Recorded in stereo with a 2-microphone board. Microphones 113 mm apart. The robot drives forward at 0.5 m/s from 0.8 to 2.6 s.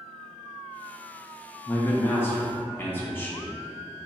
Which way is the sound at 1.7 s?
20° left (ahead or behind).